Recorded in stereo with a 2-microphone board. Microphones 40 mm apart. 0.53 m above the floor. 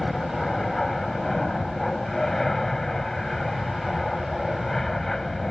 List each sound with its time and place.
0.0 s an aircraft: 10° left (ahead or behind)